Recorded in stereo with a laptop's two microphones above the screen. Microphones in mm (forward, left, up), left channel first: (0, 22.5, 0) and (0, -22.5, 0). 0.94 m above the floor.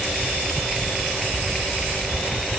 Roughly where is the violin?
I don't hear a violin.